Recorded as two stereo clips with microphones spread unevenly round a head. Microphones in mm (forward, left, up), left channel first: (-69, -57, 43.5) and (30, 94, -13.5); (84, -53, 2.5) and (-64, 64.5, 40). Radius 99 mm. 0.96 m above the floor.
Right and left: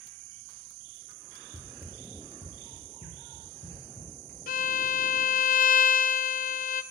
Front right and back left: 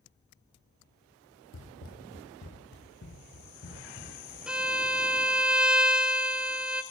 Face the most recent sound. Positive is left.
turn(degrees=-115)